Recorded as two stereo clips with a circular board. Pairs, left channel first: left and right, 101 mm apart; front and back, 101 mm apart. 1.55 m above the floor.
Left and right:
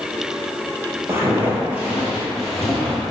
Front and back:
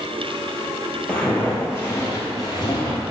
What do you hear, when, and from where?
1.1 s footsteps: 70° right, 1.7 m; by 3.0 s 10° left, 2 m